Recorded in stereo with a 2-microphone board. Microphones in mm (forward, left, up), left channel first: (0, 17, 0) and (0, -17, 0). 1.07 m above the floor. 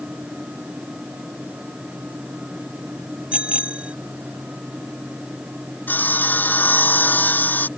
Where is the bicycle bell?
40° right (ahead or behind).